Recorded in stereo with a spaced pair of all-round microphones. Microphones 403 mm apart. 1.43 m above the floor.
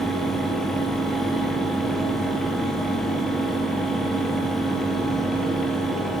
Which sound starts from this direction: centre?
A fan, at 0.0 s.